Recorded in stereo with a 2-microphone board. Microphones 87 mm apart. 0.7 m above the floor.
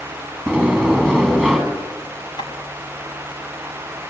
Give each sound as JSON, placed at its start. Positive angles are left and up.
{"t": 0.5, "sound": "a sliding door", "side_deg": 10, "distance_m": 7.0}
{"t": 2.4, "sound": "tapping", "side_deg": 60, "distance_m": 5.5}